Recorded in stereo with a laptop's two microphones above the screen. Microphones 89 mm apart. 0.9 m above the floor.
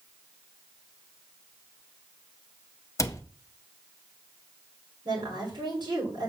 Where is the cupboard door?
35° left (ahead or behind), 0.5 m.